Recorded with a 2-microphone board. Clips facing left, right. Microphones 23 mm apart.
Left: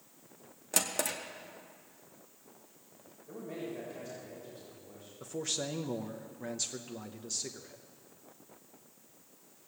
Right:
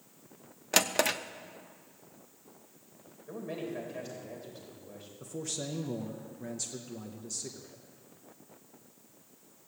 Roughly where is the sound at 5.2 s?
Left.